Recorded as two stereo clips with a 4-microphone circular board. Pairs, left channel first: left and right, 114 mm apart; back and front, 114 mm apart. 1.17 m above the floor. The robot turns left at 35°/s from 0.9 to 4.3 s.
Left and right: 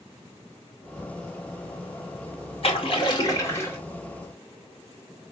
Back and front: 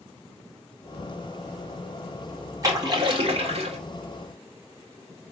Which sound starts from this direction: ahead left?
A splash, at 2.6 s.